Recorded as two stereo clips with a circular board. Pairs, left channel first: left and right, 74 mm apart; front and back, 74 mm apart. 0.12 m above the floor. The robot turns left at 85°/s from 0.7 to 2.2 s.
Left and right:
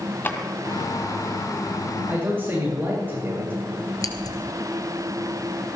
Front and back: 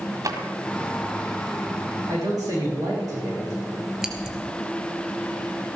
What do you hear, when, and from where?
0.2 s a drawer: 150° left, 1.8 m
2.1 s a man speaking: 145° right, 6.5 m; by 3.5 s 155° right, 6.5 m
4.0 s scissors: 100° left, 1.7 m